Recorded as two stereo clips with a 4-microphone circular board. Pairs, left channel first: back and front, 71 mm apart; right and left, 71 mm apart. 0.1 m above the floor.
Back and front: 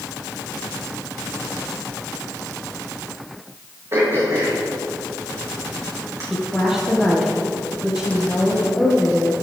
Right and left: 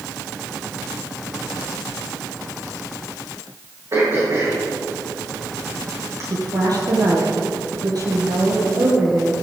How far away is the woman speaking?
About 3.5 m.